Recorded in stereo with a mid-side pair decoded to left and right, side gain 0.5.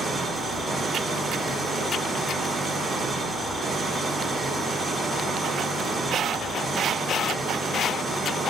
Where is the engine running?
35° right, 2.5 m.